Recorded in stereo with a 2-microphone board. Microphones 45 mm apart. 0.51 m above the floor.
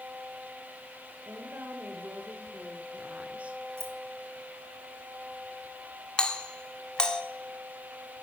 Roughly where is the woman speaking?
Right.